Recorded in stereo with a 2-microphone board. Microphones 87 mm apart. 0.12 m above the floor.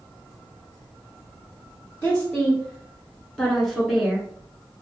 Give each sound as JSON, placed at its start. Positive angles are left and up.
{"t": 2.0, "sound": "a woman speaking", "side_deg": 20, "distance_m": 1.4}